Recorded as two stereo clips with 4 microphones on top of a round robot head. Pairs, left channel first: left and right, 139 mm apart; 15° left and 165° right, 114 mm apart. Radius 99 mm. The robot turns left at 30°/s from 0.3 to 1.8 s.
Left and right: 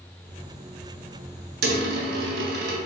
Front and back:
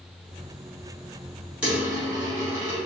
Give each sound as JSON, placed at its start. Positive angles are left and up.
{"t": 1.6, "sound": "a dropped coin", "azimuth_deg": -80, "distance_m": 0.6}